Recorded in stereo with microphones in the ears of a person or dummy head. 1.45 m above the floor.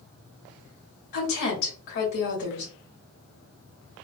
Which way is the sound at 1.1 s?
65° left (ahead or behind).